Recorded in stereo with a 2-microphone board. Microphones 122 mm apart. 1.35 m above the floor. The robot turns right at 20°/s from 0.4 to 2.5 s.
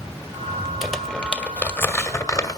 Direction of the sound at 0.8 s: Centre (ahead or behind).